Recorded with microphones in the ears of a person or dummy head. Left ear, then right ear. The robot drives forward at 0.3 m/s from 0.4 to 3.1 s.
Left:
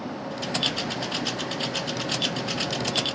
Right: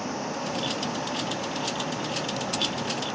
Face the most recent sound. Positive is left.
turn(degrees=-75)  # may be behind; listen again after turning